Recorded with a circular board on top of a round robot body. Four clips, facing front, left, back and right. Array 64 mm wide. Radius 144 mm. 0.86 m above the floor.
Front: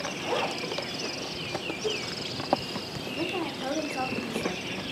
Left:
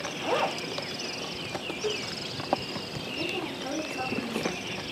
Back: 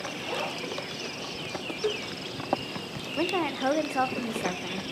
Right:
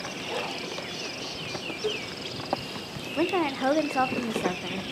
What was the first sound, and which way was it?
A zipper, 75° left.